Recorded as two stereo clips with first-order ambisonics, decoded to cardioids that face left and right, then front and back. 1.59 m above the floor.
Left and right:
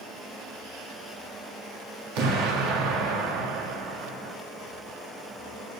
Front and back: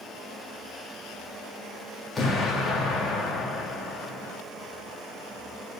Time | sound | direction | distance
2.1 | an explosion | 75° right | 1.8 m